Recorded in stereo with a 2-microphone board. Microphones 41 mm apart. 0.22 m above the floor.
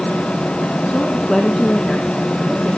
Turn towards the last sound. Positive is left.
turn(degrees=-10)  # may be behind; listen again after turning